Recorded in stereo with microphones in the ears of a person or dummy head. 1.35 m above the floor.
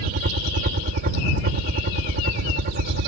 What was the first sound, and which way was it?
A helicopter, 55° right (ahead or behind).